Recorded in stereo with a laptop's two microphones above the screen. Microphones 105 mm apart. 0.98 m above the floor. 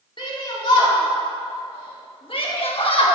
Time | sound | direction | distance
0.2 | a shout | 55° left (ahead or behind) | 2.5 m